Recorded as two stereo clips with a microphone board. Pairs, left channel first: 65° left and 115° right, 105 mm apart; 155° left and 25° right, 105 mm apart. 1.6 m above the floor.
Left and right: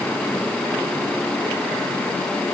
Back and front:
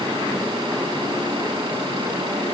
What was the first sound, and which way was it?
Only background noise.